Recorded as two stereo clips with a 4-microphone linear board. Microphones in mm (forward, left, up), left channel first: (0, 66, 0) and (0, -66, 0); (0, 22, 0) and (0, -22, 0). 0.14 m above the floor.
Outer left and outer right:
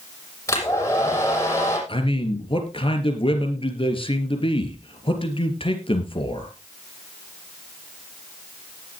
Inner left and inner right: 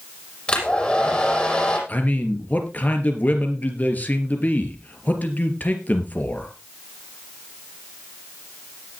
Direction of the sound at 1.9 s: 45° left (ahead or behind).